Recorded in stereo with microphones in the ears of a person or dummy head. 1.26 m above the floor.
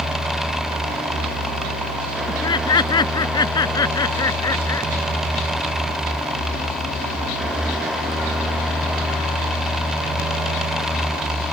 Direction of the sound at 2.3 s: 30° left (ahead or behind).